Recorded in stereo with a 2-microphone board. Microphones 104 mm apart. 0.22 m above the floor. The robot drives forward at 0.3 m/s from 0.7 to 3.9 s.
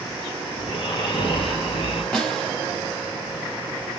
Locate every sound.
0.6 s snoring: 60° left (ahead or behind), 4 m
2.1 s a snare drum: 10° left (ahead or behind), 1.9 m